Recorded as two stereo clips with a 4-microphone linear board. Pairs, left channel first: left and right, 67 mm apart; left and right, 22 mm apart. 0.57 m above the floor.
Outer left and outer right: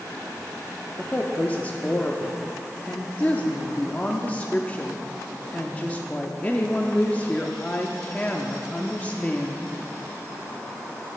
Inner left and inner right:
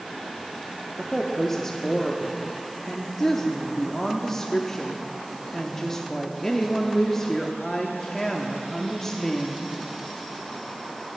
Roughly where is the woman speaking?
Left.